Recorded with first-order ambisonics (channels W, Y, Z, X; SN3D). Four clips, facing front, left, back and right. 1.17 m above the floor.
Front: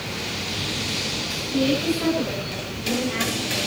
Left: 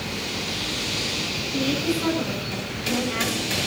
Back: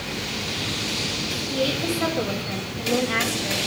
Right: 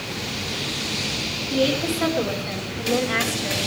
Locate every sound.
1.5 s a woman speaking: 115° right, 7 m